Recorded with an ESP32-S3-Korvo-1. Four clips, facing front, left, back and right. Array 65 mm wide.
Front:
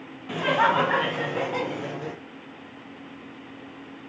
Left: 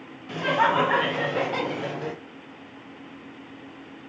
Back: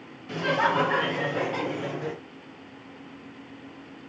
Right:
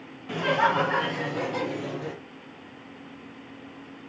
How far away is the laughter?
About 0.9 m.